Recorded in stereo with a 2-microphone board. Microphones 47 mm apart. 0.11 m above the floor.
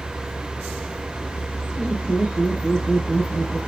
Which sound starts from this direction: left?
Laughter, at 1.8 s.